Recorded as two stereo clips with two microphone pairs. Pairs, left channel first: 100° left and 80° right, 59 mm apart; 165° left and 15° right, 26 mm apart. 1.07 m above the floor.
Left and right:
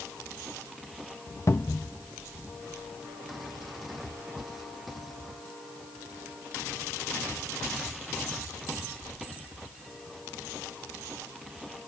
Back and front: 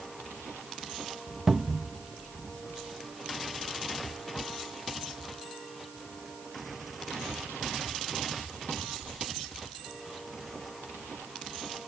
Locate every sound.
1.5 s a cupboard door: 65° left